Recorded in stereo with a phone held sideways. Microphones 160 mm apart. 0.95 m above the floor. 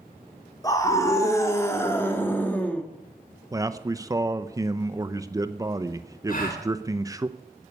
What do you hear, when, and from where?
0.6 s a scream: 20° left (ahead or behind), 3 m; by 2.8 s 10° left (ahead or behind), 1.9 m
3.5 s a man speaking: 20° right (ahead or behind), 0.6 m
6.3 s a gasp: 65° left (ahead or behind), 3.5 m